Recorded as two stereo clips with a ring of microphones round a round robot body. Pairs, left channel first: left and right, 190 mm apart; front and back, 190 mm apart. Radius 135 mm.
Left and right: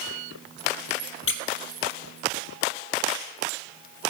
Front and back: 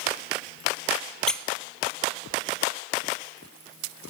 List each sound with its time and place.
1.3 s a squeak: 85° left, 0.8 m